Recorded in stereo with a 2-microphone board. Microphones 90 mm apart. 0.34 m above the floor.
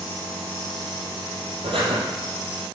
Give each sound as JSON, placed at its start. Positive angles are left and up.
{"t": 1.6, "sound": "breathing", "side_deg": -75, "distance_m": 2.5}